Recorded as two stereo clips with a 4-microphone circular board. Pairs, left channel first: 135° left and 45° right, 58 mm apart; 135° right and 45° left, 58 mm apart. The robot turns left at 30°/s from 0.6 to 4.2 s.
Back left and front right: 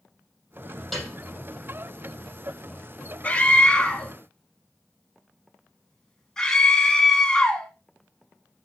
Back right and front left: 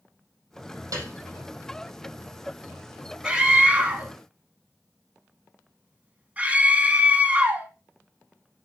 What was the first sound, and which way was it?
A piano, 45° left.